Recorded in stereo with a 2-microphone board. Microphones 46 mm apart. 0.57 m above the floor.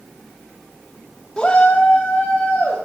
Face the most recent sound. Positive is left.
turn(degrees=65)  # may be behind; listen again after turning